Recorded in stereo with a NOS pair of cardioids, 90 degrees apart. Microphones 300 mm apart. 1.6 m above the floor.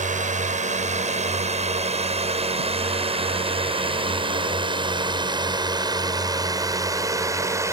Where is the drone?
25° right; by 7.7 s 10° right.